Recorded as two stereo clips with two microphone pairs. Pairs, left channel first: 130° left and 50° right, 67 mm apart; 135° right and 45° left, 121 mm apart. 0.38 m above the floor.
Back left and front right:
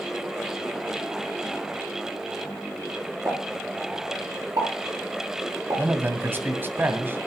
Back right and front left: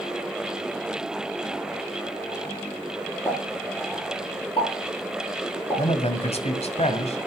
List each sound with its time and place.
3.2 s a pop: 80° right, 7 m
5.8 s a man speaking: 110° right, 2 m